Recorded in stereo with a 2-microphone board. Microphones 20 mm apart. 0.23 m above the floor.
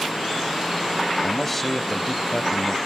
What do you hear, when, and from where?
1.2 s a man speaking: 10° left (ahead or behind), 1.1 m